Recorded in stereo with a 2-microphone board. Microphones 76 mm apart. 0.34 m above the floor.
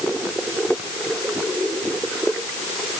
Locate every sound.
Only background noise.